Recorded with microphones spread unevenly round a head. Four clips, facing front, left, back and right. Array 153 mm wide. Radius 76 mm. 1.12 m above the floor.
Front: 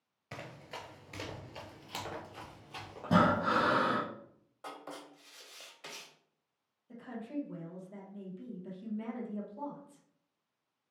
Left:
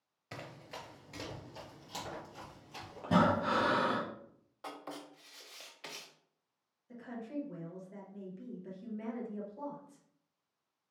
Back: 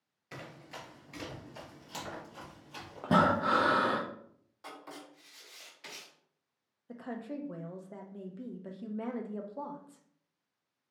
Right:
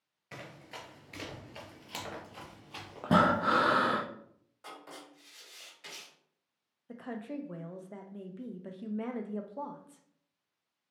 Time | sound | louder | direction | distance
0.3 | running footsteps | even, front 1 dB | 40° left | 1.2 m
3.0 | breathing | right 3 dB, back 1 dB | 125° right | 0.6 m
4.6 | writing | left 3 dB, front 2 dB | 60° left | 0.9 m
6.9 | a woman speaking | right 2 dB, back 1 dB | 130° right | 0.5 m